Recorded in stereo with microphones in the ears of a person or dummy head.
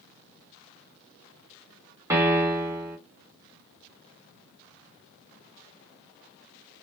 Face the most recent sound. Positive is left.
turn(degrees=-15)  # may be behind; listen again after turning